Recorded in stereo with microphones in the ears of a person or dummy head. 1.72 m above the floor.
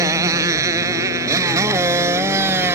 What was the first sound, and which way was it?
A motorcycle, 15° right (ahead or behind).